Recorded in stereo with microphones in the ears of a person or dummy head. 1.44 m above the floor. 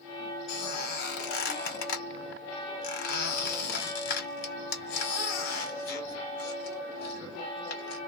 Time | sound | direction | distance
0.5 | a squeak | 60° left (ahead or behind) | 1.2 m